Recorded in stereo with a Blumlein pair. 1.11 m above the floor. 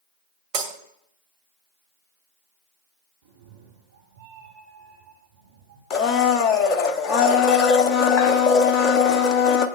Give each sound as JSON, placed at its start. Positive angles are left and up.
{"t": 0.5, "sound": "breaking glass", "azimuth_deg": -35, "distance_m": 2.0}
{"t": 3.2, "sound": "a cat meowing", "azimuth_deg": -55, "distance_m": 4.5}
{"t": 5.9, "sound": "a blender", "azimuth_deg": 30, "distance_m": 1.0}